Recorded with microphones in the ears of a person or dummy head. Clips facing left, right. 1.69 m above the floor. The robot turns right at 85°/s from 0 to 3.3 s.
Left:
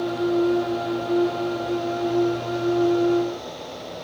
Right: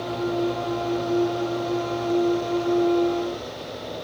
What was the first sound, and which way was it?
Only background noise.